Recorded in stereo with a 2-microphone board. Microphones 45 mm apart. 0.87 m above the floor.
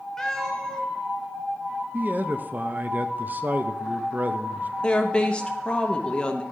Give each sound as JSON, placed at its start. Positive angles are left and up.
{"t": 0.2, "sound": "a cat meowing", "side_deg": 10, "distance_m": 1.4}
{"t": 1.9, "sound": "a man speaking", "side_deg": -40, "distance_m": 0.5}
{"t": 4.8, "sound": "a woman speaking", "side_deg": 20, "distance_m": 0.8}